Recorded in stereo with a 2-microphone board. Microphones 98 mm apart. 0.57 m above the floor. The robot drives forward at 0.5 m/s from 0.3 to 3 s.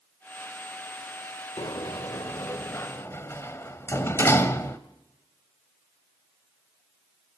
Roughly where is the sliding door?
Left.